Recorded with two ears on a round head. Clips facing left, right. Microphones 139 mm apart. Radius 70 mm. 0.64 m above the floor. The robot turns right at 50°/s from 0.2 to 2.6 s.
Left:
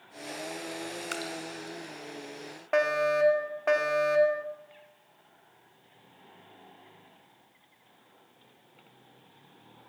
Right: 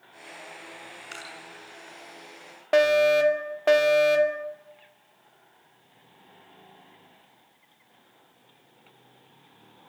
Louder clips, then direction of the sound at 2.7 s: Right 7 dB; 35° right (ahead or behind).